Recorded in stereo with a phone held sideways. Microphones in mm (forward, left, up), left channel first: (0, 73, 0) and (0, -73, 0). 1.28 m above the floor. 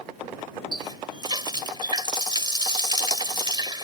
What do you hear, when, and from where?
0.7 s a running tap: 30° right (ahead or behind)